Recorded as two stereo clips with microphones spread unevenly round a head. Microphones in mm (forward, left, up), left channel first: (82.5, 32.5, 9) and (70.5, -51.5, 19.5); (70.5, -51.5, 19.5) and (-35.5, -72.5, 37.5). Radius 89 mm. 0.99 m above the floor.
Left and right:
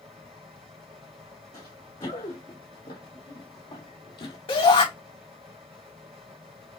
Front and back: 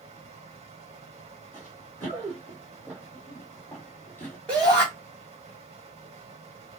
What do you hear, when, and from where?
0.0 s a fan: 150° right, 1.7 m
1.5 s running footsteps: 130° left, 2.5 m; by 4.4 s 90° left, 1.4 m
4.5 s a shout: 90° left, 3 m